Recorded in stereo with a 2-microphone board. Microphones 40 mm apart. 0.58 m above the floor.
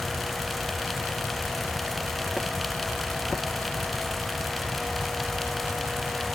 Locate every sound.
Only background noise.